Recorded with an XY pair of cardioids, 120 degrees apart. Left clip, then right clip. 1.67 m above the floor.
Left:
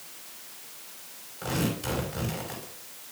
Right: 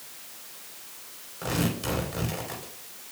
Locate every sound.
1.4 s tearing paper: 25° right, 5 m